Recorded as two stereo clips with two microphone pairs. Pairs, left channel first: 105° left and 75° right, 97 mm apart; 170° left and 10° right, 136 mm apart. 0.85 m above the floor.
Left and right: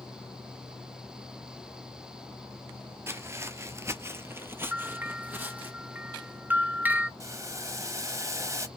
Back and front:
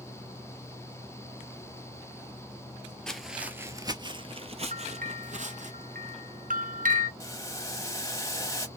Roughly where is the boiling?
Behind right.